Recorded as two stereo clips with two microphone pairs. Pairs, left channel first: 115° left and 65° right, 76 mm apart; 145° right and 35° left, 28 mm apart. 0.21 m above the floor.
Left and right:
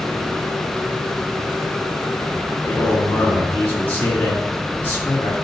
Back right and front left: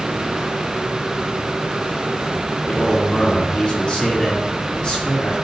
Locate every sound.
2.6 s a man speaking: 175° left, 3 m